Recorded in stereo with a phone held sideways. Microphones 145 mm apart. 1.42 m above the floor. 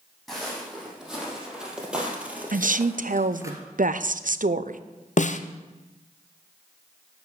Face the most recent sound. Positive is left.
turn(degrees=55)  # may be behind; listen again after turning